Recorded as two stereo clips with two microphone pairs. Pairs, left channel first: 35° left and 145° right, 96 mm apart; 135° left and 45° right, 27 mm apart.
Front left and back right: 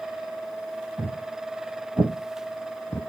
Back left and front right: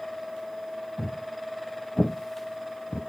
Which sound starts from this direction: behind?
Footsteps, at 1.0 s.